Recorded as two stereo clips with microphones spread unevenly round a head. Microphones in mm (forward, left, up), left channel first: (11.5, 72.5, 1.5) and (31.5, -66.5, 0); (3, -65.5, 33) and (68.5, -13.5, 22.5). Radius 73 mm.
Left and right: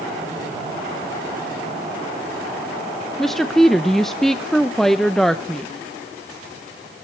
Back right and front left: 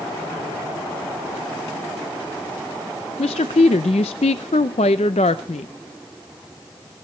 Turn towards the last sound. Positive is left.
turn(degrees=-175)